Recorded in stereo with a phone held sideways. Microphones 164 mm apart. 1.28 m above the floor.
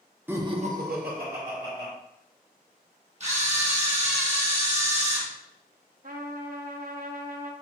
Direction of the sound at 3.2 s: 45° right (ahead or behind).